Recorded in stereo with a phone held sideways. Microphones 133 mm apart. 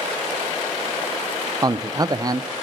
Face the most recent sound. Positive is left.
turn(degrees=-30)  # may be behind; listen again after turning